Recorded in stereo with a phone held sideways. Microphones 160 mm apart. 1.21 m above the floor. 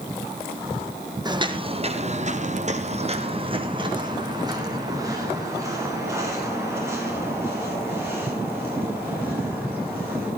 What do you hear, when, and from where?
1.2 s footsteps: 25° right (ahead or behind), 2.5 m; by 10.3 s 15° right (ahead or behind), 13 m